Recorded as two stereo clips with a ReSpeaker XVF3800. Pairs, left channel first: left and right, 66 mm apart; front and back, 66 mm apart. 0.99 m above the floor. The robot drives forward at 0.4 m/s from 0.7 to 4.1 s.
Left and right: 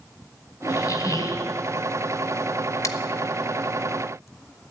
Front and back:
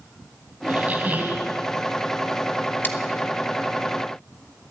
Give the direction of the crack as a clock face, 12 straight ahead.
No crack in this recording.